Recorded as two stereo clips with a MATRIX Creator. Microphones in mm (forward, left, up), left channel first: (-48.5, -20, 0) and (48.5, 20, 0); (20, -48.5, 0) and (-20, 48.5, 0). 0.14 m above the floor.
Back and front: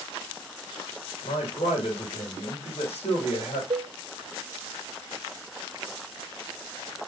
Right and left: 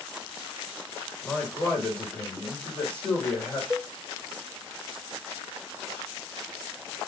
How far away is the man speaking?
About 6 m.